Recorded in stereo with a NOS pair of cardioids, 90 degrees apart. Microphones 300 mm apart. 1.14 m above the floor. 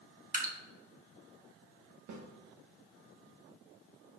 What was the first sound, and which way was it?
Dripping, 25° right.